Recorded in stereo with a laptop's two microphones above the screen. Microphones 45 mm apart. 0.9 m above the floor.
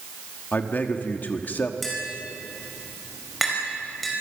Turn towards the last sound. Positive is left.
turn(degrees=0)  # may be behind; listen again after turning